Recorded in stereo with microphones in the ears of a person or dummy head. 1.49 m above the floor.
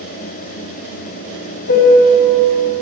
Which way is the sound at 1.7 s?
55° left (ahead or behind).